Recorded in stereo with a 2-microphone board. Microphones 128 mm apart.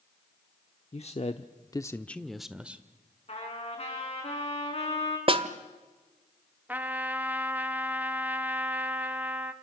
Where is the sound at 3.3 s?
45° left (ahead or behind), 6 m.